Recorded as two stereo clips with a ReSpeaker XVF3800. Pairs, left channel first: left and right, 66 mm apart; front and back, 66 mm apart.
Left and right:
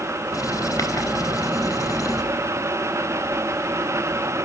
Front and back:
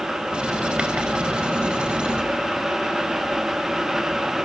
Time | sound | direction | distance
0.3 | writing | 105° left | 4 m